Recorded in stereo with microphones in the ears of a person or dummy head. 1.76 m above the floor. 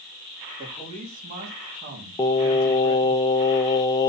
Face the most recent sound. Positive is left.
turn(degrees=20)  # may be behind; listen again after turning